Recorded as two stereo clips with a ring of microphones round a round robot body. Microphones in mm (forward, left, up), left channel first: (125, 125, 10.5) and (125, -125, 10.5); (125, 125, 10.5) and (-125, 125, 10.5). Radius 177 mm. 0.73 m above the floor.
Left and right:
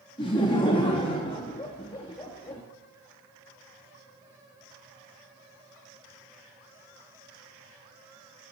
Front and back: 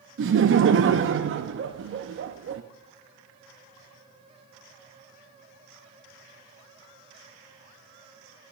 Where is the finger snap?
No finger snap in this recording.